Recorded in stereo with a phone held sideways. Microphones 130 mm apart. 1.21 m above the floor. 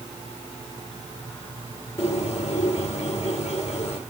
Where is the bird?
65° left (ahead or behind), 3 m.